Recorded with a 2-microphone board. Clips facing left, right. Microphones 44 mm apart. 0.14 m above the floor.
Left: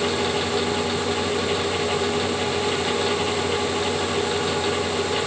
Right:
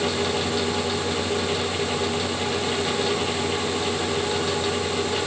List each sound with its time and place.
Only background noise.